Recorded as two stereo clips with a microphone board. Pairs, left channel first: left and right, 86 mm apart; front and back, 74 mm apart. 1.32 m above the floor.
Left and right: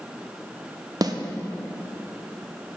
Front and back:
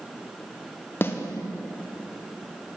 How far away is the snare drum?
About 0.9 m.